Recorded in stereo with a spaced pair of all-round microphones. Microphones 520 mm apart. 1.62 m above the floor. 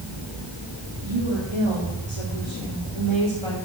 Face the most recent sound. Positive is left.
turn(degrees=-65)  # may be behind; listen again after turning